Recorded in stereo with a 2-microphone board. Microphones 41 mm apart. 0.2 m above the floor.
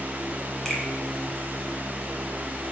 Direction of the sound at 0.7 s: 10° left (ahead or behind).